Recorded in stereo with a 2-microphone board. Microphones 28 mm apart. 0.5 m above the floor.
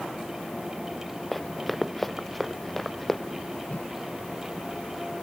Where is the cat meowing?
I don't hear a cat meowing.